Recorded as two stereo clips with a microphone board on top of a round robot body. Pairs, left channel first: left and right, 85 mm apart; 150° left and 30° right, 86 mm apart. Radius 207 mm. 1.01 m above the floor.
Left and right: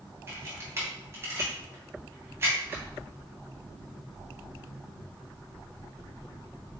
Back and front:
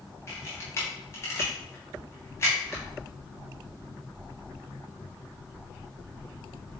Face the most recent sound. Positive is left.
turn(degrees=-150)